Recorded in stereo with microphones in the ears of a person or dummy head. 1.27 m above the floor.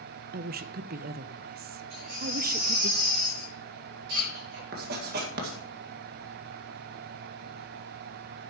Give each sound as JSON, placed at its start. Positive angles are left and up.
{"t": 0.3, "sound": "a woman speaking", "side_deg": -50, "distance_m": 0.6}
{"t": 1.9, "sound": "a baby crying", "side_deg": -70, "distance_m": 5.5}
{"t": 4.7, "sound": "writing", "side_deg": -55, "distance_m": 1.8}